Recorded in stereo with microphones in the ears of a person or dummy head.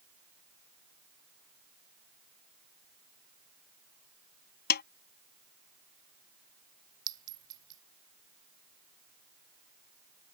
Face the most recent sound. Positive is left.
turn(degrees=-25)  # may be behind; listen again after turning